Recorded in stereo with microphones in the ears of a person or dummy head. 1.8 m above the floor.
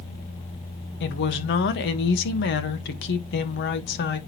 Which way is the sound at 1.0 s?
60° left (ahead or behind).